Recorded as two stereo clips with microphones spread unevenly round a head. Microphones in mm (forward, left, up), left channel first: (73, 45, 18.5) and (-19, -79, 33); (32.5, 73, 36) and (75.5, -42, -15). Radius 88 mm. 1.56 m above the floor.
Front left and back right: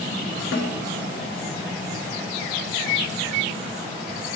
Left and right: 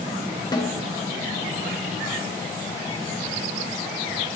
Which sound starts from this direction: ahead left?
A snare drum, at 0.5 s.